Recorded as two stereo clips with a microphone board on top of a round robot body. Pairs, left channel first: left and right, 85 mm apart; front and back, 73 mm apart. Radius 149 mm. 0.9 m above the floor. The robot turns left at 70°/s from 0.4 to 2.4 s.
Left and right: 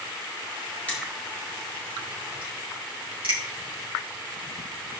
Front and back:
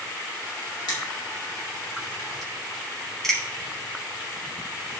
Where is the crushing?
20° left, 2.5 m; by 3.4 s 90° right, 2.5 m.